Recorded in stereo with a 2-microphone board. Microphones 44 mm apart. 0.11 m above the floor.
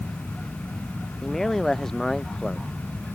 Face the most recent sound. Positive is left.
turn(degrees=10)  # may be behind; listen again after turning